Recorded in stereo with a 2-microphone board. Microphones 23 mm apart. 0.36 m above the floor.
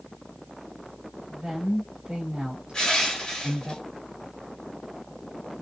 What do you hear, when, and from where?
1.3 s a woman speaking: 40° right (ahead or behind), 1.2 m
2.7 s crushing: 40° left (ahead or behind), 1.6 m